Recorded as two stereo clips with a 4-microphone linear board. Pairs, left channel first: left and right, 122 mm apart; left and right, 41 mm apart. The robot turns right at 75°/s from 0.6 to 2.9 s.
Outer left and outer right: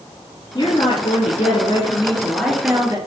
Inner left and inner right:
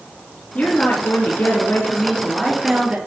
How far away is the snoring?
I don't hear snoring.